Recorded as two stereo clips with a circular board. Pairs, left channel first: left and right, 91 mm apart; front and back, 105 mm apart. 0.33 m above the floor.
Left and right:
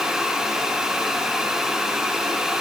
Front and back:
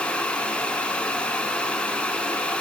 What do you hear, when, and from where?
Only background noise.